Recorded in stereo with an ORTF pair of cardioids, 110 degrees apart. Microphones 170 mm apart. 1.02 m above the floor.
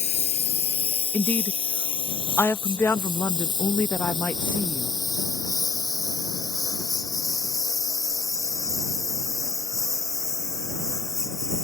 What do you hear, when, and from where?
0.0 s a lawn mower: 45° left; by 11.6 s 15° left
1.1 s a woman speaking: 10° left